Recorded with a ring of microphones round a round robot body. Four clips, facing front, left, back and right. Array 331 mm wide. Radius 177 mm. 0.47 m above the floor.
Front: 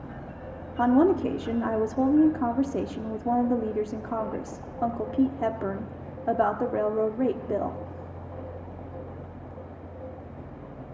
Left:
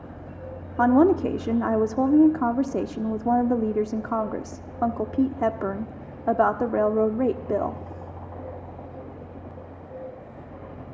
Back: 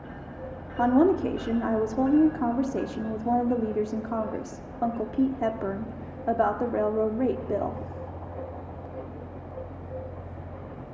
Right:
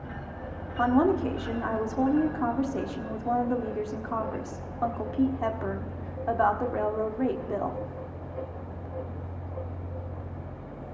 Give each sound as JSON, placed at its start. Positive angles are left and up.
{"t": 0.8, "sound": "a woman speaking", "azimuth_deg": 85, "distance_m": 1.2}